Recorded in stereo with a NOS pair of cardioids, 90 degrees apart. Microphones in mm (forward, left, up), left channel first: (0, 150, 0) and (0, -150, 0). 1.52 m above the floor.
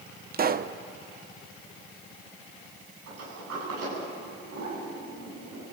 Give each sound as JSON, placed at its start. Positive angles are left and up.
{"t": 0.3, "sound": "a pop", "azimuth_deg": -35, "distance_m": 1.0}
{"t": 3.1, "sound": "a sliding door", "azimuth_deg": -60, "distance_m": 9.5}